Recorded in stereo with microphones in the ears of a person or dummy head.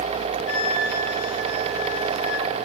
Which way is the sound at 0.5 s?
80° left.